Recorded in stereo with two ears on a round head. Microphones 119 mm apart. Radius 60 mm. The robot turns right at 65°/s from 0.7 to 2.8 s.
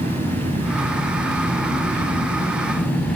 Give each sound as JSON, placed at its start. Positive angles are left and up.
{"t": 0.0, "sound": "an engine running", "azimuth_deg": -130, "distance_m": 6.5}